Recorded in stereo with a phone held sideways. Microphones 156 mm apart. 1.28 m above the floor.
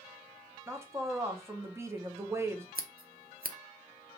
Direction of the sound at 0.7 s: 20° right (ahead or behind).